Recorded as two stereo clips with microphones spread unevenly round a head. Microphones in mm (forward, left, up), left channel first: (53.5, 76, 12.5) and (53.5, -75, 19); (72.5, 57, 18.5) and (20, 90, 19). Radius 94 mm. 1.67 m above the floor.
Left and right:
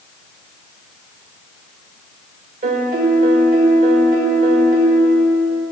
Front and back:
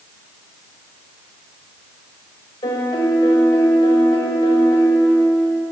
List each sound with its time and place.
2.6 s a piano: 55° right, 1.8 m